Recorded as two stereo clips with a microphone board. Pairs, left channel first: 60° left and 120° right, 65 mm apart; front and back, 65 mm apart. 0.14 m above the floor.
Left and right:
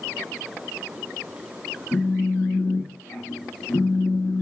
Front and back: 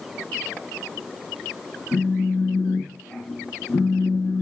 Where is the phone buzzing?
30° left, 0.7 m.